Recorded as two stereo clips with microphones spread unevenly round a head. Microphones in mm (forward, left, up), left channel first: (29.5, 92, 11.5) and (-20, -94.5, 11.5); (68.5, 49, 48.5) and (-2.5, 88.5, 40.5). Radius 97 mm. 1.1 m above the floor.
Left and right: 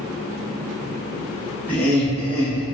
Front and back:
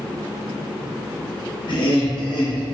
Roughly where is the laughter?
Ahead.